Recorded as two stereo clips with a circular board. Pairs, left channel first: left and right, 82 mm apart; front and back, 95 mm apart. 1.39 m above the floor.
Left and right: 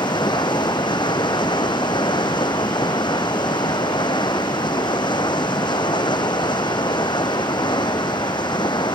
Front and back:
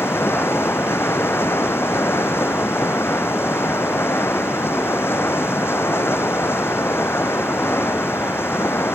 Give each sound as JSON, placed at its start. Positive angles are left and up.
{"t": 0.0, "sound": "running water", "azimuth_deg": 65}